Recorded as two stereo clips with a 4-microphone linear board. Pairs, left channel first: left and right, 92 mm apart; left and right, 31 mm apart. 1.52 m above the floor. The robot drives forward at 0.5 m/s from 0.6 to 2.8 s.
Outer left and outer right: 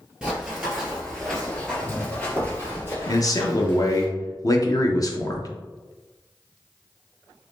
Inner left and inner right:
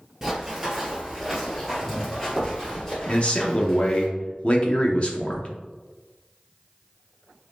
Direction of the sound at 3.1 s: 40° left (ahead or behind).